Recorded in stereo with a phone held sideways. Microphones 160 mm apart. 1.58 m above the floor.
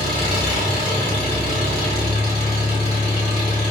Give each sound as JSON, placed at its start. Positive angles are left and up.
{"t": 0.0, "sound": "an engine running", "side_deg": 40, "distance_m": 1.9}